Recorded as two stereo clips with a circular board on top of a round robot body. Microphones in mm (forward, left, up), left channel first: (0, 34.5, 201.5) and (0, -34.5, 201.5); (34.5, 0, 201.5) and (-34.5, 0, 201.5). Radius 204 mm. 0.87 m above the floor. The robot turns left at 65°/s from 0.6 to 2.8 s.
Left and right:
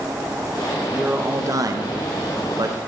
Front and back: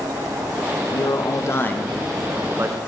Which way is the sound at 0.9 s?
10° right.